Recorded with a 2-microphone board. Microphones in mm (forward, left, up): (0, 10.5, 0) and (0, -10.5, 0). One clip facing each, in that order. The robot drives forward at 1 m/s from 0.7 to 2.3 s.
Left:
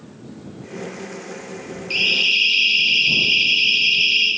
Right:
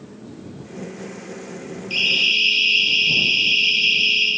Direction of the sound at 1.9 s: 65° left (ahead or behind).